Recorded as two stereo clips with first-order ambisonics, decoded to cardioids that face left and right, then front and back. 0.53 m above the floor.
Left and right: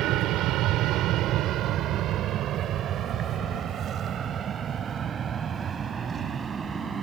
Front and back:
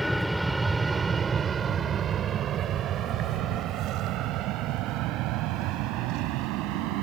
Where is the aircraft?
90° right; by 7.0 s 160° right.